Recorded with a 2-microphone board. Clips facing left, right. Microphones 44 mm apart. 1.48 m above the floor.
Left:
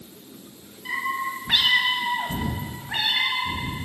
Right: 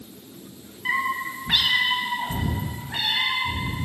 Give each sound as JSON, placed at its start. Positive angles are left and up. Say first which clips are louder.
{"t": 0.8, "sound": "a cat meowing", "louder": "right 2 dB", "side_deg": -40, "distance_m": 0.8}